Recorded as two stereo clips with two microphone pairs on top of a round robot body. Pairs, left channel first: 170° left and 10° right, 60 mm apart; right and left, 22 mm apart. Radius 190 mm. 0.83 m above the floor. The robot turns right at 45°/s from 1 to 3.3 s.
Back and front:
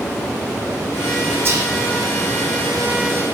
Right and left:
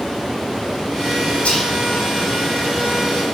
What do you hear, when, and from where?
1.4 s whispering: 65° right, 1.6 m; by 1.7 s 55° right, 1.6 m